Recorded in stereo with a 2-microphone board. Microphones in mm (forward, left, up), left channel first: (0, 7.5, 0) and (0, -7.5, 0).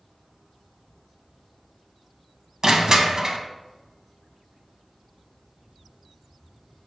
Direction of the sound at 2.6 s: 40° right (ahead or behind).